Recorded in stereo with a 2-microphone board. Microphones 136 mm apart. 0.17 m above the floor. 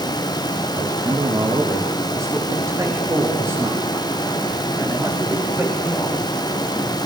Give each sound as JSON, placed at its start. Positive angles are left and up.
{"t": 0.8, "sound": "a man speaking", "side_deg": -25, "distance_m": 8.5}